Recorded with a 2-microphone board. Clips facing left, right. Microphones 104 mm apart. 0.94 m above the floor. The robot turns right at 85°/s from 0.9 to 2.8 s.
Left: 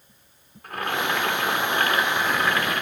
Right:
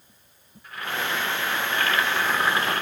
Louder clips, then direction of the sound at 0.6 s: Left 4 dB; 60° left.